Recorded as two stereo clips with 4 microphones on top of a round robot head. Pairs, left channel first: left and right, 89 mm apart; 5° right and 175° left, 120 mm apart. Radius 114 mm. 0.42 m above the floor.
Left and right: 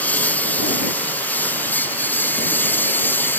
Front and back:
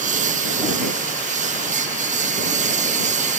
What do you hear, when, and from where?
0.0 s a lawn mower: 165° left; by 3.4 s 160° left